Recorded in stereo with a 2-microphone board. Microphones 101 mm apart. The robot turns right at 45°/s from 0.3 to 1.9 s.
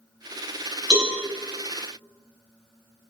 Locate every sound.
0.9 s a cowbell: 50° right (ahead or behind), 1.9 m